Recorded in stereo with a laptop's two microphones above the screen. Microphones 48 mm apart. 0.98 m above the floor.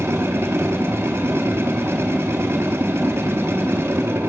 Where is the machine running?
65° right (ahead or behind), 1.4 m.